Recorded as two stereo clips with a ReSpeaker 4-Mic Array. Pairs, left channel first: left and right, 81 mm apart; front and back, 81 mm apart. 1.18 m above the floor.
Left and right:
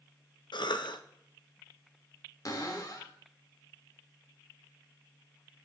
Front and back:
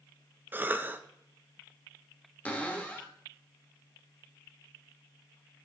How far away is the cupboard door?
About 1.1 m.